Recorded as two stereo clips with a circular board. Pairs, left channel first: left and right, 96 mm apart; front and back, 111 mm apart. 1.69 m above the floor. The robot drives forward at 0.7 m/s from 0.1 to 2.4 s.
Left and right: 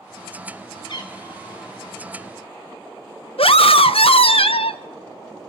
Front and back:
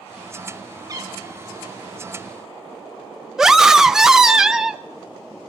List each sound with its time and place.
0.9 s a cat meowing: 120° left, 3 m; by 2.0 s 135° left, 3.5 m
3.4 s a scream: 95° left, 1.3 m